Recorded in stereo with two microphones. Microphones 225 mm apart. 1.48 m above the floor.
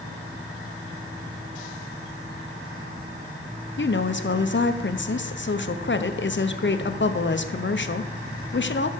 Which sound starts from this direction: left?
A woman speaking, at 3.8 s.